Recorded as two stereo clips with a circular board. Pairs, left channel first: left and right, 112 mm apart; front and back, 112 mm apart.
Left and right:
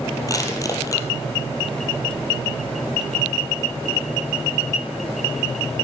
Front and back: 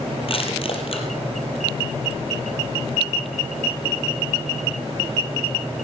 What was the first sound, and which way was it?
Crushing, 30° left.